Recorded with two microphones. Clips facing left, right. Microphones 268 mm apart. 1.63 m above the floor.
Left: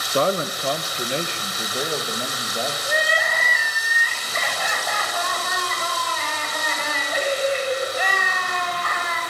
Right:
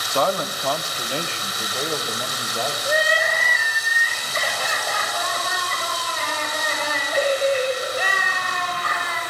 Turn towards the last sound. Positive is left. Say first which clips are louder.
# right 3 dB
turn(degrees=-35)  # may be behind; listen again after turning